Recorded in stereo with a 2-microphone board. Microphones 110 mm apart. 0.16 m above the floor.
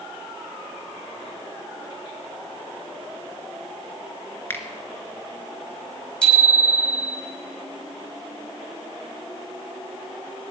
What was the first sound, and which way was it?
A finger snap, 20° left (ahead or behind).